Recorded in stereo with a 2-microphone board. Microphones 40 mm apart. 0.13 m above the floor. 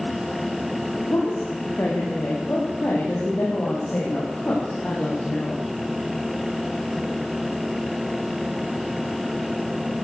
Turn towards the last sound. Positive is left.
turn(degrees=45)  # may be behind; listen again after turning